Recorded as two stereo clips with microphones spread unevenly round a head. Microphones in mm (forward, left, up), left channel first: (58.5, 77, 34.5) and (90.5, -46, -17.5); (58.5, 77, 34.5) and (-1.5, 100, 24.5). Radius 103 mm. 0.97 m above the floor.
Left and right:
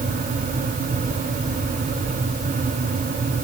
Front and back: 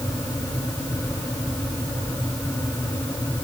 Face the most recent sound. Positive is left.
No sound to turn to.